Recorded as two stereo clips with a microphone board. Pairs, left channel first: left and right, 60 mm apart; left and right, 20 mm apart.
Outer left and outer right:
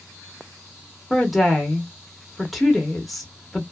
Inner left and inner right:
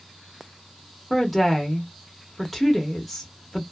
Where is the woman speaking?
5° left (ahead or behind), 0.7 m.